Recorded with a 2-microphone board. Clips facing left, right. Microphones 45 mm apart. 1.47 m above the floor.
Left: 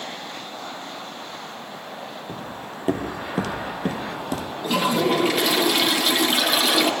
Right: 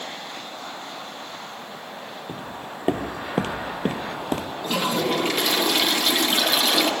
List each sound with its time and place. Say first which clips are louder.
2.3 s footsteps: even; 25° right (ahead or behind), 2 m; by 4.5 s 40° right (ahead or behind), 1.9 m
4.6 s a toilet flushing: left 3 dB; 5° left (ahead or behind), 1.5 m